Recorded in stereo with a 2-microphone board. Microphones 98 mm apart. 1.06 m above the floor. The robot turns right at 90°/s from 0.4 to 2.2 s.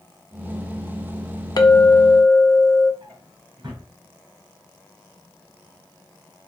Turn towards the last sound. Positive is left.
turn(degrees=-45)  # may be behind; listen again after turning